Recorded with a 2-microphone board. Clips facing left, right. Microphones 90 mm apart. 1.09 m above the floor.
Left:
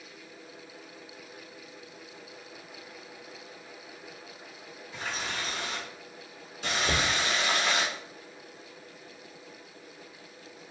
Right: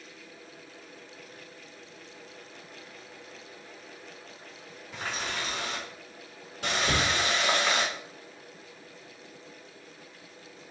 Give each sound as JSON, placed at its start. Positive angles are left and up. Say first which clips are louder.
{"t": 4.9, "sound": "a running tap", "louder": "right 1 dB", "side_deg": -65, "distance_m": 2.0}
{"t": 6.8, "sound": "knocking", "louder": "right 1 dB", "side_deg": -65, "distance_m": 1.5}